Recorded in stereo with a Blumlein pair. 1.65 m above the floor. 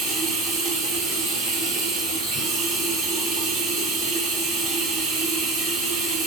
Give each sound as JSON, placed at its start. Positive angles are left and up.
{"t": 0.0, "sound": "running water", "azimuth_deg": -20, "distance_m": 4.0}